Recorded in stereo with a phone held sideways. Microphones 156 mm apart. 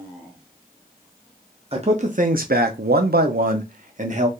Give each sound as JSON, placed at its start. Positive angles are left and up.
{"t": 1.7, "sound": "a man speaking", "side_deg": -40, "distance_m": 0.8}